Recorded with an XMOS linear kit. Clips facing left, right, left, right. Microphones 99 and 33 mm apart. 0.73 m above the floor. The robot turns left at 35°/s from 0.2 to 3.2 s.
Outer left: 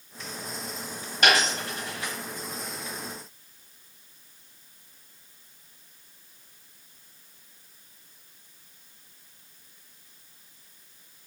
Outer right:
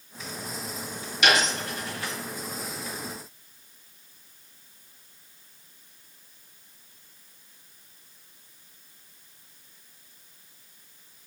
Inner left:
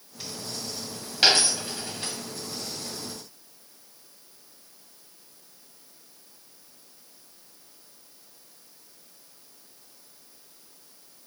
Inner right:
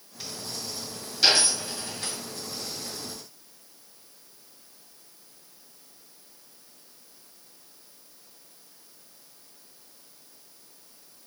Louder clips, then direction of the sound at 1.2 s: Even, inner left 1 dB; 45° left (ahead or behind).